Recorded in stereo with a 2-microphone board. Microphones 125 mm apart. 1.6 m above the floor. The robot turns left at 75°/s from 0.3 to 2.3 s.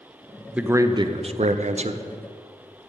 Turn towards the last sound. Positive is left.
turn(degrees=-140)